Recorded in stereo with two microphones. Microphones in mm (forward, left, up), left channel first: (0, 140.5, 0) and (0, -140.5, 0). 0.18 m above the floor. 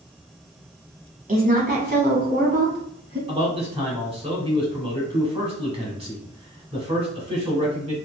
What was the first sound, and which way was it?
A woman speaking, 30° right (ahead or behind).